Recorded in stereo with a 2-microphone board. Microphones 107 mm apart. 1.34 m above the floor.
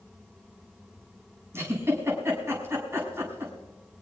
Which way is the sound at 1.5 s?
25° right (ahead or behind).